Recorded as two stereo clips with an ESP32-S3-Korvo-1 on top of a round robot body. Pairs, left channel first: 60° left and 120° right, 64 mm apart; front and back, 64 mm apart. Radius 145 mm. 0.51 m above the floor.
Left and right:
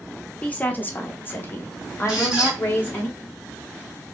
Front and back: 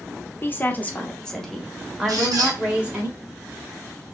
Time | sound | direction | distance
0.4 | a woman speaking | 10° left | 1.1 m
2.1 | a squeak | 160° left | 1.9 m